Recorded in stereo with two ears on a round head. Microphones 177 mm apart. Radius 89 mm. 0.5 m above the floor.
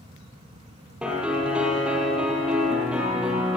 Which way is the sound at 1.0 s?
5° right (ahead or behind).